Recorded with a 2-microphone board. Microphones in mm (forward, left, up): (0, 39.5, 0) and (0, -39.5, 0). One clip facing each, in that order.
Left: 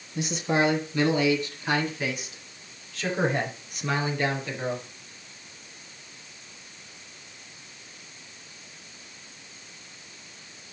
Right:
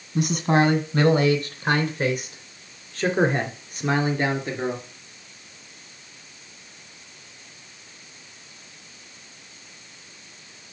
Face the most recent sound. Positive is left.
turn(degrees=-30)  # may be behind; listen again after turning